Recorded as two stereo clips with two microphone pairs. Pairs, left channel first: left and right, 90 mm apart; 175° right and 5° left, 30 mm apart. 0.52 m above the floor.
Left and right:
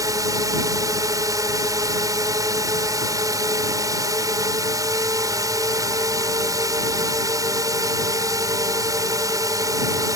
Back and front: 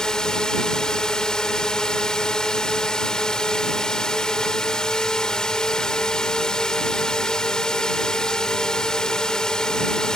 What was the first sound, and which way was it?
A drone, 120° right.